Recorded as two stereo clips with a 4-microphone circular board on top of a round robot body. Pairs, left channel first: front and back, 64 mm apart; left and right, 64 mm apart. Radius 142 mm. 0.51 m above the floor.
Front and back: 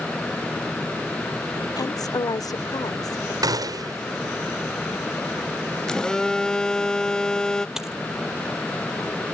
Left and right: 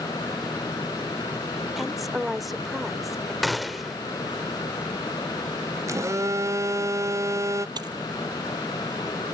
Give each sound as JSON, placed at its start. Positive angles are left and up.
{"t": 1.8, "sound": "a woman speaking", "azimuth_deg": 0}
{"t": 3.4, "sound": "a gunshot", "azimuth_deg": 180}
{"t": 5.9, "sound": "a phone buzzing", "azimuth_deg": -75}
{"t": 7.8, "sound": "a dropped coin", "azimuth_deg": -95}